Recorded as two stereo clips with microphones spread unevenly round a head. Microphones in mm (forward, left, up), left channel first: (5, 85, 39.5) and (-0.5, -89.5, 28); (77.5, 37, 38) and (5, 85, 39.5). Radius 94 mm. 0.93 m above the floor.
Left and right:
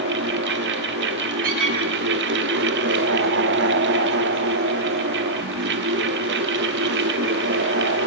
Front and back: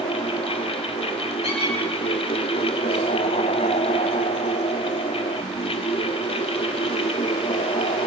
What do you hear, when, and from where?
0.0 s a fan: 65° right, 1.2 m
1.4 s a squeak: 50° right, 8 m